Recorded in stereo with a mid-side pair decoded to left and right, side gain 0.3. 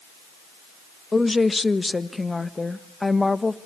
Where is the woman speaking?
30° left, 1.4 m.